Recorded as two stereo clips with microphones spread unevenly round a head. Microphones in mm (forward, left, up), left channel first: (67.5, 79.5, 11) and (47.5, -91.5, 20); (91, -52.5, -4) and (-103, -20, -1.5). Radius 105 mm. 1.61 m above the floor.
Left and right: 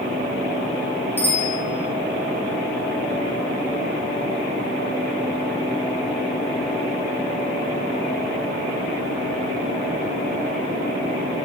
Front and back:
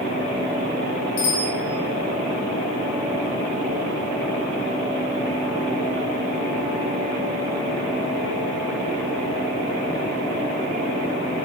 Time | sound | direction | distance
1.2 | a bicycle bell | 5° left | 6.5 m